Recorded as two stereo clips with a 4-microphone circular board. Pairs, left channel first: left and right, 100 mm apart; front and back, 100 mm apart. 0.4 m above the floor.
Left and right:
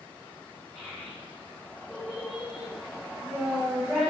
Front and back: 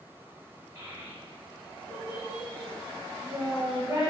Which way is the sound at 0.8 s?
160° right.